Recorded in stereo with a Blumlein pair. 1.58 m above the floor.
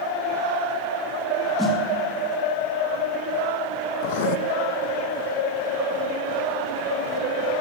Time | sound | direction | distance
1.6 | a snare drum | 10° left | 2.5 m
4.0 | writing | 50° left | 0.7 m